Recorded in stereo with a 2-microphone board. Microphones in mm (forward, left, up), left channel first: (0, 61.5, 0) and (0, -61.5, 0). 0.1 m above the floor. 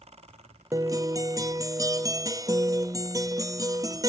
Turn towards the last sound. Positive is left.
turn(degrees=-30)  # may be behind; listen again after turning